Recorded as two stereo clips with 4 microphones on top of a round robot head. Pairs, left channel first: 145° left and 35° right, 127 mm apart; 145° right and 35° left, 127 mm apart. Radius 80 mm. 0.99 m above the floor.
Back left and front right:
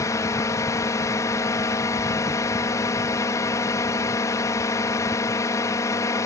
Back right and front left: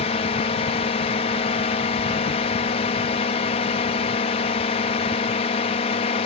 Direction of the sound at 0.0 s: 160° right.